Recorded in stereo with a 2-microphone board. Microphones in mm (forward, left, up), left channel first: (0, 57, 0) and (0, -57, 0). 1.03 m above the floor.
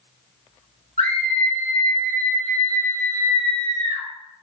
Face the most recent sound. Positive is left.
turn(degrees=60)  # may be behind; listen again after turning